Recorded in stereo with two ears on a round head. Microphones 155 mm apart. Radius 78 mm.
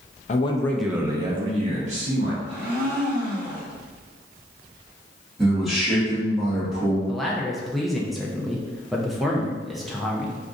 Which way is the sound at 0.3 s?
40° left (ahead or behind).